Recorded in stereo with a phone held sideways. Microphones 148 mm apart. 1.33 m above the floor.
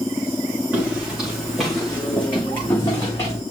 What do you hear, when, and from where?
0.7 s footsteps: 5° right (ahead or behind), 5.5 m; by 3.4 s 25° left (ahead or behind), 5 m